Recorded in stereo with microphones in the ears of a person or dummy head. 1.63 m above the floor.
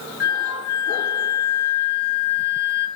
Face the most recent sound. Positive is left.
turn(degrees=-20)  # may be behind; listen again after turning